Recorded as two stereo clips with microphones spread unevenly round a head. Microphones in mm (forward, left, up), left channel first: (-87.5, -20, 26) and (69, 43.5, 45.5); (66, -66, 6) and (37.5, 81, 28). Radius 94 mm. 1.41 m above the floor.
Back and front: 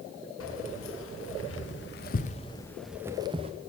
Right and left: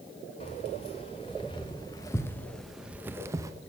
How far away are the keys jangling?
About 1.6 m.